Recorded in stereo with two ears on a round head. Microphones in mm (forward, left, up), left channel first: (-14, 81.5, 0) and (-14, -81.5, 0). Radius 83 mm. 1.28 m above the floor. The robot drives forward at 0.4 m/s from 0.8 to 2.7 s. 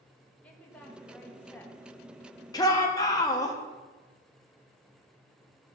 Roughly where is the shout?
Left.